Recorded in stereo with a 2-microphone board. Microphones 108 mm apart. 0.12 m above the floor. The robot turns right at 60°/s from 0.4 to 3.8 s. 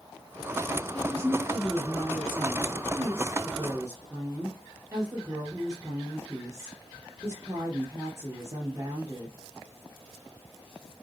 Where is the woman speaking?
155° left, 3.5 m; by 9.4 s 35° right, 3.5 m.